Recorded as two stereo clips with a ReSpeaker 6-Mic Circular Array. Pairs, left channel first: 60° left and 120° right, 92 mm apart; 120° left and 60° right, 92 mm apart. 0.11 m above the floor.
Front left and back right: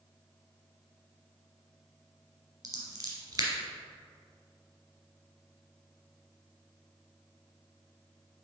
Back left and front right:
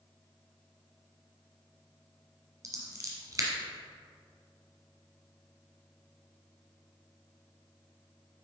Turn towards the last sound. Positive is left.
turn(degrees=-90)